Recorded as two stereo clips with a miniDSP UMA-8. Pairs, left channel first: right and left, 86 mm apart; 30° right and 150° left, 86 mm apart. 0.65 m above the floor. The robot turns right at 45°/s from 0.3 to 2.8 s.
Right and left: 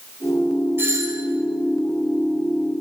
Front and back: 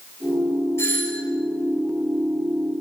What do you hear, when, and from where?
0.8 s a doorbell: 30° left, 4 m; by 1.2 s 50° left, 4 m